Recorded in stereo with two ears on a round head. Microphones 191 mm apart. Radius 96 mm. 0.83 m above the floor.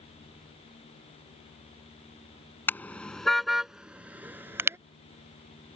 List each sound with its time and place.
2.7 s a car horn: 10° left (ahead or behind); by 4.8 s 10° right (ahead or behind)